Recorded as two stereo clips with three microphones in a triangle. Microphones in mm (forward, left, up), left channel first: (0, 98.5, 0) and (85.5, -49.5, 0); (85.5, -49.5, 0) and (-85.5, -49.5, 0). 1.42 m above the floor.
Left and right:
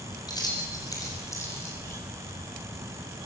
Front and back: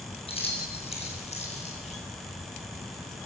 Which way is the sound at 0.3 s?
55° left.